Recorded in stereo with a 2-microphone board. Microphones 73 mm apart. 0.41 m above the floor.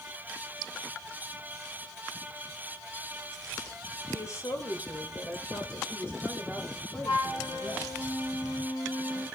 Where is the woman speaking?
45° left (ahead or behind), 1.6 m; by 7.9 s 15° left (ahead or behind), 2.5 m.